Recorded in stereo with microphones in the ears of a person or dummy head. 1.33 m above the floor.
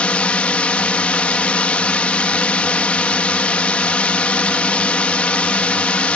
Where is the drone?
5° left (ahead or behind).